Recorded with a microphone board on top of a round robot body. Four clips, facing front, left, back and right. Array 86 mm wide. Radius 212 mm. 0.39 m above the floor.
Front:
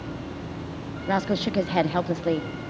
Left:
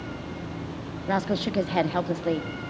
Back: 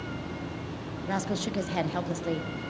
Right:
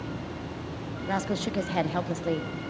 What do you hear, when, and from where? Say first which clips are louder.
1.1 s a woman speaking: left 4 dB, front 6 dB; 25° left, 0.8 m